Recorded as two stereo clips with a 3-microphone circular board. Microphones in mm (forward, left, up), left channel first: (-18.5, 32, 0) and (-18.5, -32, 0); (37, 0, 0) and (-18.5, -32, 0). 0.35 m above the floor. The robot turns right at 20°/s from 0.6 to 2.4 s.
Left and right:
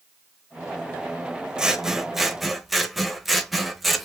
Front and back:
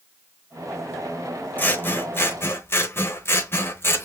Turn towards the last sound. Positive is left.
turn(degrees=0)